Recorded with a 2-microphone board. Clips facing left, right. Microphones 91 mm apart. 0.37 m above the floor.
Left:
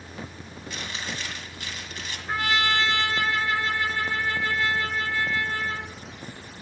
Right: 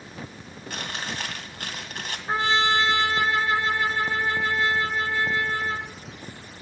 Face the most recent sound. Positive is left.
turn(degrees=-30)  # may be behind; listen again after turning